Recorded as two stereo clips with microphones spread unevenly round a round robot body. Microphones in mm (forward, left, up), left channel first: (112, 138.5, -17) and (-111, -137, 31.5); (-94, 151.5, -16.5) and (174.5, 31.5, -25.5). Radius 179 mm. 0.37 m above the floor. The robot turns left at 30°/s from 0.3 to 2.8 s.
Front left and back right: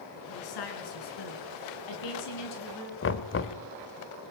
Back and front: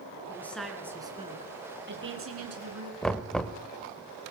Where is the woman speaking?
75° left, 5 m; by 2.9 s straight ahead, 5 m.